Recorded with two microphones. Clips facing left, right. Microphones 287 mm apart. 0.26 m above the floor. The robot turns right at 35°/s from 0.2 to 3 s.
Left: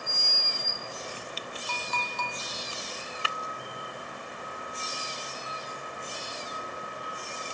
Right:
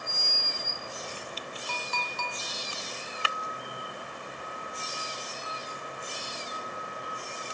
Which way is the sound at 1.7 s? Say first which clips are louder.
Left 1 dB; 45° left (ahead or behind).